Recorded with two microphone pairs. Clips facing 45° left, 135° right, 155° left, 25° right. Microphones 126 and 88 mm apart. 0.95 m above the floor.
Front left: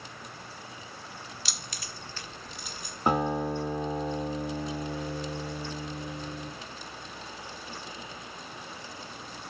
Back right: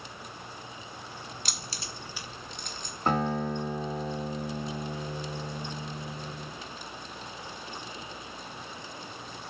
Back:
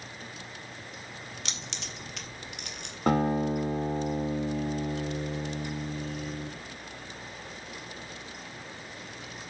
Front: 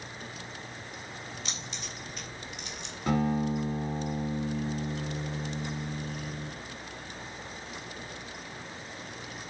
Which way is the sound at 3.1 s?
120° left.